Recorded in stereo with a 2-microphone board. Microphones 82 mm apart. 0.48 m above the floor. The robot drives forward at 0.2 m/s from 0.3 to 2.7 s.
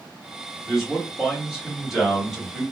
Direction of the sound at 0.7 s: 5° right (ahead or behind).